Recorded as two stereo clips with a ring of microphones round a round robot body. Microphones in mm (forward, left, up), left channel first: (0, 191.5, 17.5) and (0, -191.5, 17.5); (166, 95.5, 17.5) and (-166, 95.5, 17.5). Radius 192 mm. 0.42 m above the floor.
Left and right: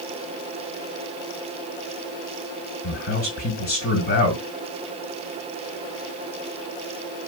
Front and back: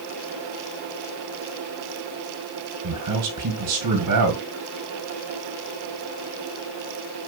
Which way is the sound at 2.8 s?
150° left.